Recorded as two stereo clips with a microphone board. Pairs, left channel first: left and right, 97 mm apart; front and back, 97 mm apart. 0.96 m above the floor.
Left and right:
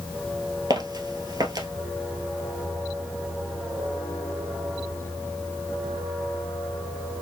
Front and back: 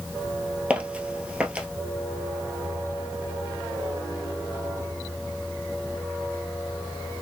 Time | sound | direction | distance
0.7 | footsteps | 110° right | 1.3 m